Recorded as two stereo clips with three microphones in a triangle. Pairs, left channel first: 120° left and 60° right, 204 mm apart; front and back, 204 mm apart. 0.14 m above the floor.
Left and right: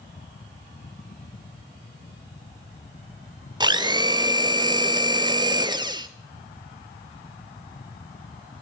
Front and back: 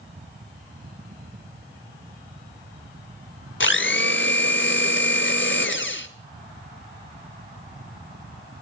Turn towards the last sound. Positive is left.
turn(degrees=5)